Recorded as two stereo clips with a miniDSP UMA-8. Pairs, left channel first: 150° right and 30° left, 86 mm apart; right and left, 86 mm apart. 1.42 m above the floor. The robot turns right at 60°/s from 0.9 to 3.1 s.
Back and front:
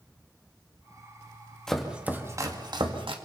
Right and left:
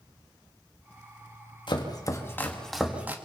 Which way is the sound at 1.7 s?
65° right.